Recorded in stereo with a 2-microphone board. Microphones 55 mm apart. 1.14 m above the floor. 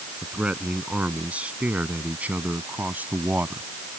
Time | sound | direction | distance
0.2 | a man speaking | 25° right (ahead or behind) | ?